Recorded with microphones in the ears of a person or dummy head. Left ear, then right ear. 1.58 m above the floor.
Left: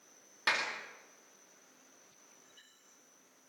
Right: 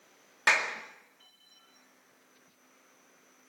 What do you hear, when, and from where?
0.5 s a clap: 20° right (ahead or behind), 2 m